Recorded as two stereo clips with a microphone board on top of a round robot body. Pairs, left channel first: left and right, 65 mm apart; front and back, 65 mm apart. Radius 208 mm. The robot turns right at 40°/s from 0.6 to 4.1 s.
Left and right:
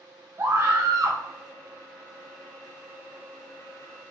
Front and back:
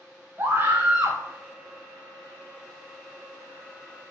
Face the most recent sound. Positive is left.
turn(degrees=10)